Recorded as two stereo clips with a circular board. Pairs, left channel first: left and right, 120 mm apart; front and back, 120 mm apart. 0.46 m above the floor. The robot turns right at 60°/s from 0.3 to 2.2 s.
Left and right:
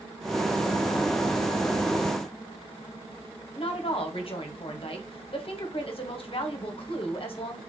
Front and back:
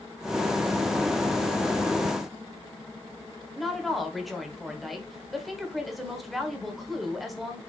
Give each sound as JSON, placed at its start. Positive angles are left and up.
{"t": 3.5, "sound": "a woman speaking", "azimuth_deg": 90, "distance_m": 1.2}